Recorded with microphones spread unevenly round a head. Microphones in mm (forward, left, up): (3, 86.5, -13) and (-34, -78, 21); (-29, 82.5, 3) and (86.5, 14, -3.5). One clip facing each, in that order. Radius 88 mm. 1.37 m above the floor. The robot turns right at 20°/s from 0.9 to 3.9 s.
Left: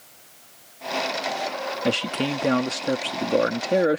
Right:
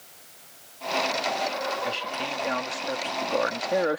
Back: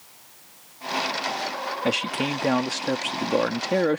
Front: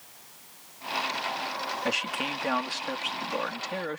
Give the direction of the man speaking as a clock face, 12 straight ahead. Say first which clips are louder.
Left 8 dB, back 8 dB; 9 o'clock.